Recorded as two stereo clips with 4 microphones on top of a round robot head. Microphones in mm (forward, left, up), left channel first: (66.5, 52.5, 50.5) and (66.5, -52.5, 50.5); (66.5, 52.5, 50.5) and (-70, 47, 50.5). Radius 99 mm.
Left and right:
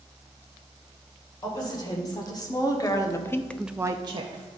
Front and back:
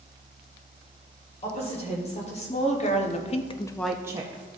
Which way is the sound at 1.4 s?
40° left.